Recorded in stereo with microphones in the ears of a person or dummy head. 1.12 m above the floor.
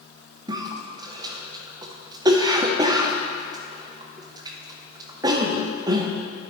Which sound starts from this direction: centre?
A cough, at 0.5 s.